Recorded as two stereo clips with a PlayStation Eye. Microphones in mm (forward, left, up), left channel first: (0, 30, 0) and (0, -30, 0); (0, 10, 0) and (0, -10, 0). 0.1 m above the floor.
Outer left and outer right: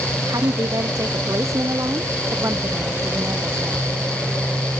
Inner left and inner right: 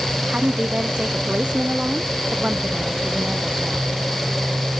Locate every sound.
0.3 s a woman speaking: 70° right (ahead or behind); by 3.9 s 35° right (ahead or behind)